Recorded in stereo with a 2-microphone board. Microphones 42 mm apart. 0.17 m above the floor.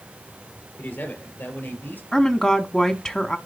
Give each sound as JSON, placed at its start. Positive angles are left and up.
{"t": 0.8, "sound": "a man speaking", "side_deg": 70, "distance_m": 4.5}
{"t": 2.1, "sound": "a woman speaking", "side_deg": 20, "distance_m": 1.0}